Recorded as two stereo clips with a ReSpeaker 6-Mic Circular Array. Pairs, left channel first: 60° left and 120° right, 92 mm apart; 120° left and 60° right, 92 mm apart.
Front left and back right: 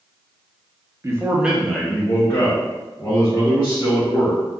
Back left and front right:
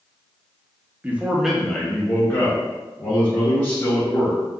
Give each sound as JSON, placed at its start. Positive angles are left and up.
{"t": 1.0, "sound": "a man speaking", "azimuth_deg": -115, "distance_m": 0.6}